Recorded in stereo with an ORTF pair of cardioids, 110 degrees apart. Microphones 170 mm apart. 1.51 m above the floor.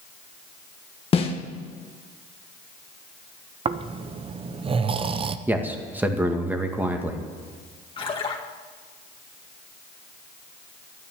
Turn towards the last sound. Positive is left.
turn(degrees=30)